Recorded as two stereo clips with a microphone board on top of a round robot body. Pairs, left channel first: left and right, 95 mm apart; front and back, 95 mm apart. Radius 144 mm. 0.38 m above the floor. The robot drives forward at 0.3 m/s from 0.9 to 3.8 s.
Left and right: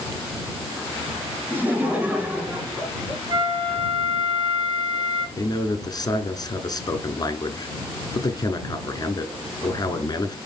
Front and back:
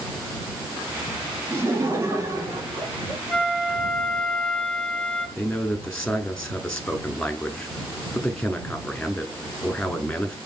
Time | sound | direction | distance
1.5 | laughter | 140° right | 1.5 m
3.3 | a flute | 75° right | 1.2 m
5.4 | a man speaking | 80° left | 1.0 m